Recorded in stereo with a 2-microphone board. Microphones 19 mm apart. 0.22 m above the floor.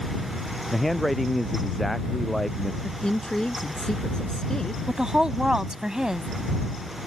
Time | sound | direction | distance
0.7 | a man speaking | 5° left (ahead or behind) | ?
2.8 | a woman speaking | 35° left (ahead or behind) | ?
4.9 | a woman speaking | 35° right (ahead or behind) | ?